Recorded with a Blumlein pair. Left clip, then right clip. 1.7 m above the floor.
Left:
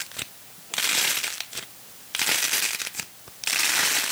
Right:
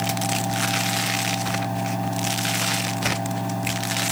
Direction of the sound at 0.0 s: 45° right.